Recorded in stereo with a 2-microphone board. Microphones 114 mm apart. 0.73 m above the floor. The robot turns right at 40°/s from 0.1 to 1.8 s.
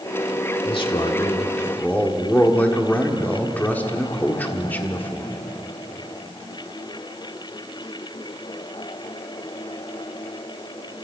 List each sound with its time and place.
0.7 s a man speaking: 115° left, 1.8 m; by 5.4 s 165° left, 1.8 m